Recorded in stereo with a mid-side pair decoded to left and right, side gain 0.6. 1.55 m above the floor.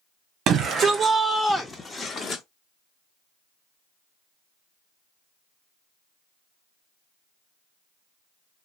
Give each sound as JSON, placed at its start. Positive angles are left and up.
{"t": 0.5, "sound": "a shout", "azimuth_deg": -60, "distance_m": 0.7}